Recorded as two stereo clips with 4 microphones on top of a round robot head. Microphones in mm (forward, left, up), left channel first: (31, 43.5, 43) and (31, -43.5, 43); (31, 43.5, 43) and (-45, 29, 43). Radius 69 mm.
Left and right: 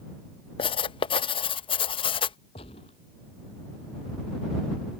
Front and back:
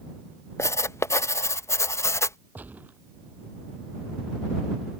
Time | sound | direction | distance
0.6 | writing | 65° left | ?
2.5 | a gunshot | 125° left | ?